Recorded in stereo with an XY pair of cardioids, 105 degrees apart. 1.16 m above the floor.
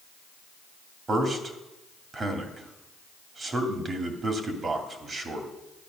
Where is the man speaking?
35° right, 2.5 m.